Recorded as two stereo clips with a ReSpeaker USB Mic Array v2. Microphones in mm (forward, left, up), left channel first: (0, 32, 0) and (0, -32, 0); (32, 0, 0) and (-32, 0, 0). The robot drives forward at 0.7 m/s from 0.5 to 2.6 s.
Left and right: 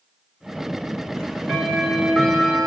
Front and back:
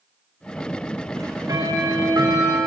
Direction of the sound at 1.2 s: 165° left.